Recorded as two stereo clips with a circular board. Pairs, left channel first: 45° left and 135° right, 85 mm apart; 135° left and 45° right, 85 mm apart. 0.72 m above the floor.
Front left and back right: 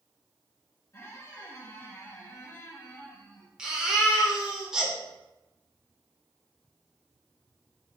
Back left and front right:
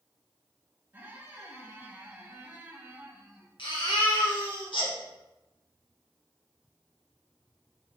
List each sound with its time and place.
0.9 s a squeak: 5° left, 0.7 m
3.6 s a baby crying: 145° left, 0.7 m